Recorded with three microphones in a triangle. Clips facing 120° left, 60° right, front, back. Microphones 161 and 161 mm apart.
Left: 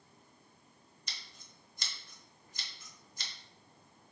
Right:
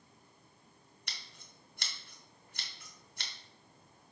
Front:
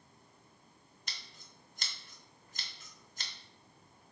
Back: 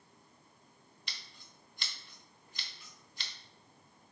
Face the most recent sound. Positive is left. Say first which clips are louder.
# right 1 dB, front 2 dB
turn(degrees=-45)